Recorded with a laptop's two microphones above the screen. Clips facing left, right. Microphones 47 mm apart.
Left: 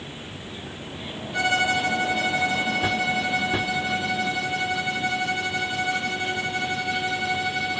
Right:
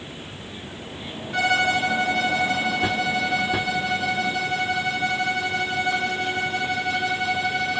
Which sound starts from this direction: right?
A violin, at 1.3 s.